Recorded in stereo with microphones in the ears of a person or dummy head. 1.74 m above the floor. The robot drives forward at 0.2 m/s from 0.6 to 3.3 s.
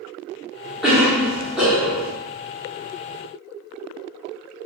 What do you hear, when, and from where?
0.8 s a cough: 5° left (ahead or behind), 0.7 m; by 2.1 s centre (ahead or behind), 0.9 m